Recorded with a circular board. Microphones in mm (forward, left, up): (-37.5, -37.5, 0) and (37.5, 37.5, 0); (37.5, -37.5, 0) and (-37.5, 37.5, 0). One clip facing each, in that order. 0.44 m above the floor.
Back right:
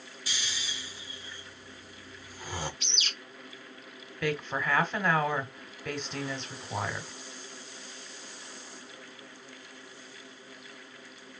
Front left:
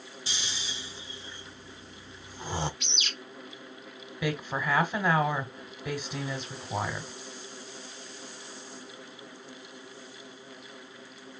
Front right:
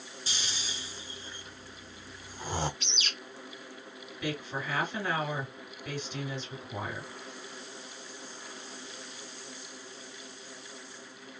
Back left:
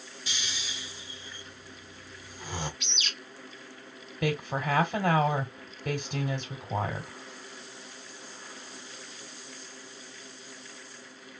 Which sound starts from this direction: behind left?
A woman speaking, at 4.2 s.